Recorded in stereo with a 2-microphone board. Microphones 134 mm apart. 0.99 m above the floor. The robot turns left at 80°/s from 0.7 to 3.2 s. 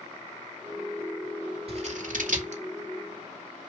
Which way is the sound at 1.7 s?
45° right (ahead or behind).